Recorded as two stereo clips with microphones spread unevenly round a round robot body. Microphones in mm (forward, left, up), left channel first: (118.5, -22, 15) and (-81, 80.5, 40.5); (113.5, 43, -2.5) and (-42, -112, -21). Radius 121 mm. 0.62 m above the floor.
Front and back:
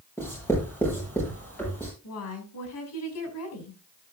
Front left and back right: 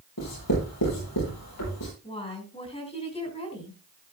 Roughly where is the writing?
Ahead left.